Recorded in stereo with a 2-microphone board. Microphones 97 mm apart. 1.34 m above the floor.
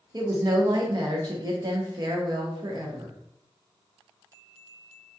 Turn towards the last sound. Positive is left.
turn(degrees=-45)  # may be behind; listen again after turning